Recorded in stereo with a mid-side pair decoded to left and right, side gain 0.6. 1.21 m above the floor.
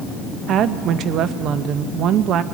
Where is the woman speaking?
55° right, 1.1 m.